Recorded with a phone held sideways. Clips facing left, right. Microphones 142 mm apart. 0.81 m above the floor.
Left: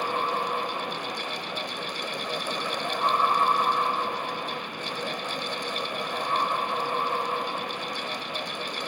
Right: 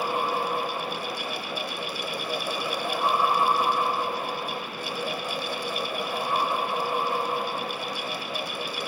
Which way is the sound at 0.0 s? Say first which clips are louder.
Right 1 dB; 10° right (ahead or behind).